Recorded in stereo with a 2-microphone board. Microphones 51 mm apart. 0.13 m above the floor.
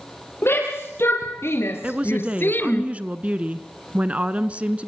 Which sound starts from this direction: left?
A shout, at 0.4 s.